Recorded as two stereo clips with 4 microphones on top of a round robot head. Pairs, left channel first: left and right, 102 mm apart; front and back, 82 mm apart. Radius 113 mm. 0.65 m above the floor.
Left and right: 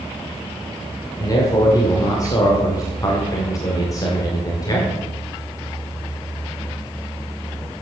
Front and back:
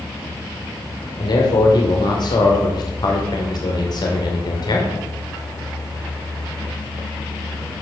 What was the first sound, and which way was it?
A man speaking, 30° left.